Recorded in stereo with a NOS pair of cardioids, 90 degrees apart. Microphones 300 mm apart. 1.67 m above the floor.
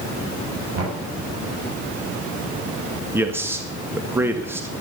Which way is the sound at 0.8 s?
55° right.